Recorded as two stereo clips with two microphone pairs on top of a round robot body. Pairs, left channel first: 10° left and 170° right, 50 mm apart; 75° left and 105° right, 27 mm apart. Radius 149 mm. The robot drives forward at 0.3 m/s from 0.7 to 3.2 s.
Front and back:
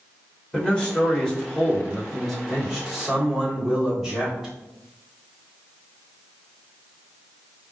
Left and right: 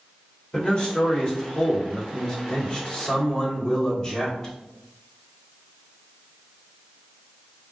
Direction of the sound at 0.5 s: 50° left.